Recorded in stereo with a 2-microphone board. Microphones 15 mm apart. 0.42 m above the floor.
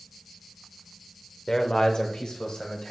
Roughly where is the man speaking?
Left.